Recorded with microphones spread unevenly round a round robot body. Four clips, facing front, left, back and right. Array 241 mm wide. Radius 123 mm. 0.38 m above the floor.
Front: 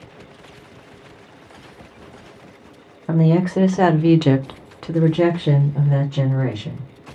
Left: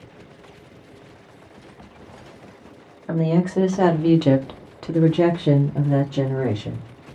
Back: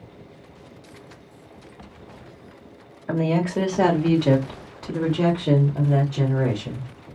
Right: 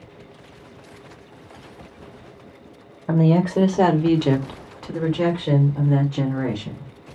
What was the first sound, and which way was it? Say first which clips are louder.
A woman speaking: right 3 dB, front 5 dB; 75° right.